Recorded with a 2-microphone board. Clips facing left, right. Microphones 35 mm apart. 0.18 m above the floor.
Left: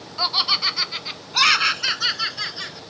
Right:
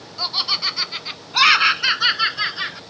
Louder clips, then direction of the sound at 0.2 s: Left 2 dB; 20° left (ahead or behind).